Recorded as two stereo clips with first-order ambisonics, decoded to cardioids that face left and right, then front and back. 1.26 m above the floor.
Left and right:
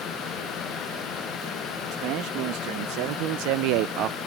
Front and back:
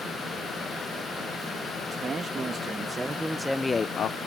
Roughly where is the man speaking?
Behind right.